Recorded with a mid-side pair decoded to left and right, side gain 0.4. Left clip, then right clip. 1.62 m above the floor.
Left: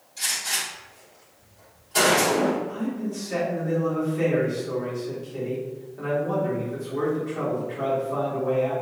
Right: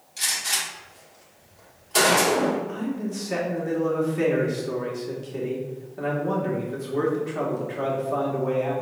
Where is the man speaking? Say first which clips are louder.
Even; 45° right, 1.5 m.